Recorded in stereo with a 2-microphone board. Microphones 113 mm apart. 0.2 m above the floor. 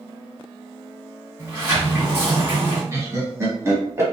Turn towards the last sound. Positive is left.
turn(degrees=-25)  # may be behind; listen again after turning